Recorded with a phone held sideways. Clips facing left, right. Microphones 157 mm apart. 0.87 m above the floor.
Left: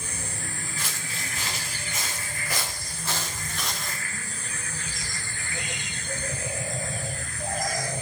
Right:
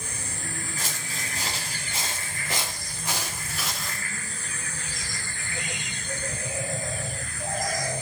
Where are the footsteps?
45° right (ahead or behind), 7 m; by 4.0 s centre (ahead or behind), 5 m.